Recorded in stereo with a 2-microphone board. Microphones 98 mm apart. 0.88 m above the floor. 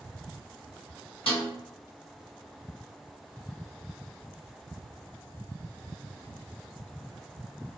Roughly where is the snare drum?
Left.